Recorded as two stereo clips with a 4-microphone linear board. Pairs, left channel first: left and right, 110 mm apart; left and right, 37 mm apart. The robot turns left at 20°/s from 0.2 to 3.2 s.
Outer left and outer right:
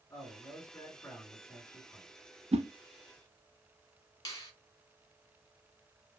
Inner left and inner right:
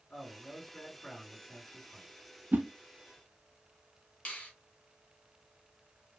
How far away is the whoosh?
About 0.6 m.